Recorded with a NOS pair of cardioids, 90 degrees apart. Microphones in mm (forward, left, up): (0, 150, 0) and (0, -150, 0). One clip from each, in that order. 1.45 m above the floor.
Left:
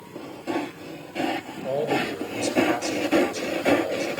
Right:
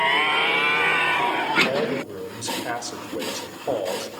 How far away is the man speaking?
About 2.5 m.